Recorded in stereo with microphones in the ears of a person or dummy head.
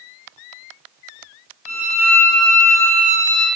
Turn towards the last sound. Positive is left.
turn(degrees=-25)  # may be behind; listen again after turning